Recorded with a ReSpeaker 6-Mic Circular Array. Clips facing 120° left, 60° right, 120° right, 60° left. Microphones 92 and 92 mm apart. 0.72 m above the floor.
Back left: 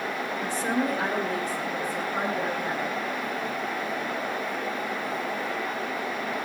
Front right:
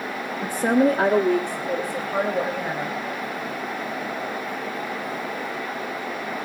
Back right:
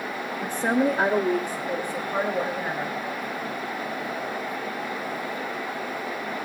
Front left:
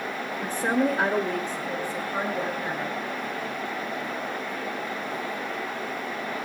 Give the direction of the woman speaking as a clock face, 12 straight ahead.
1 o'clock.